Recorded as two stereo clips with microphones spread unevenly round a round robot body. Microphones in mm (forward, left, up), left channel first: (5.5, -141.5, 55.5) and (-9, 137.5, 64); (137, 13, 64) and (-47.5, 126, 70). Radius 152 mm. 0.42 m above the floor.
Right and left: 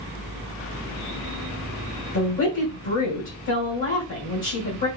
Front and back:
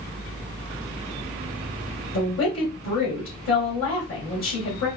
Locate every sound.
2.1 s a woman speaking: 45° right, 2 m